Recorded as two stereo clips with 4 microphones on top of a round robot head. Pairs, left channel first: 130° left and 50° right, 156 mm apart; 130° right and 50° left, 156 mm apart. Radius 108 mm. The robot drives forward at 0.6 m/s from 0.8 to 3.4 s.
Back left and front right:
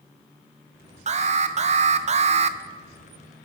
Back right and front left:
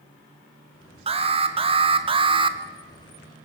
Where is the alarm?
5° right, 1.9 m.